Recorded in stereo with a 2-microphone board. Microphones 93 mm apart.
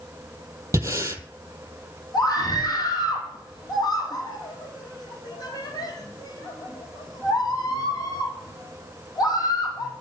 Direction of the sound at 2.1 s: 45° left (ahead or behind).